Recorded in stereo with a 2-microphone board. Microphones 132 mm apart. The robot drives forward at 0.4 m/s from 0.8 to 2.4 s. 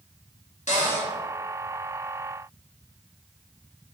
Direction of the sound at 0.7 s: 75° left (ahead or behind).